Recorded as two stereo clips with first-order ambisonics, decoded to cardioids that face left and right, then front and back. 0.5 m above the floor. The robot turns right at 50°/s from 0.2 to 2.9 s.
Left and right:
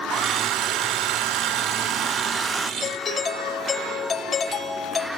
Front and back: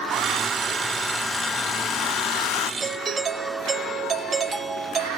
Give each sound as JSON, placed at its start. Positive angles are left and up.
{"t": 0.1, "sound": "a hair dryer", "azimuth_deg": -135, "distance_m": 0.5}
{"t": 2.8, "sound": "a doorbell", "azimuth_deg": 140, "distance_m": 1.1}